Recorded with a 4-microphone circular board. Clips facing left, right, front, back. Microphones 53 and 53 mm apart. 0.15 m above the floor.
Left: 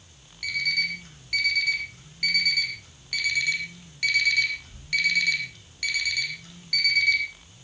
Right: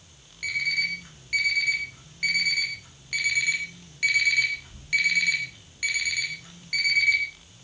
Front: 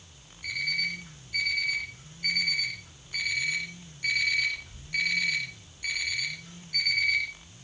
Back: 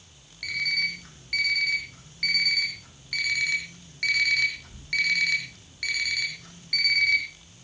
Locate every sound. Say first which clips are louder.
0.4 s an alarm clock: even, back 3 dB; 165° right, 3 m